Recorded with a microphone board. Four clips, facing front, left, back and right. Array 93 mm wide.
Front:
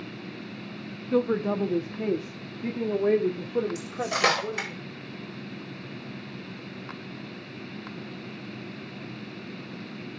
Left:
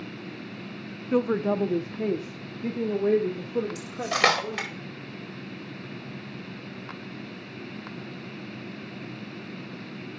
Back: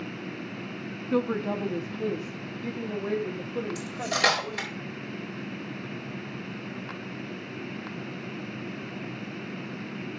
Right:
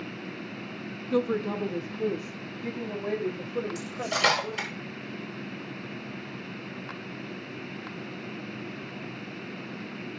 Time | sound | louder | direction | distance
1.1 | a woman speaking | left 3 dB, front 2 dB | 105° left | 0.6 m
3.8 | cutlery clinking | left 3 dB, front 1 dB | 75° left | 4.5 m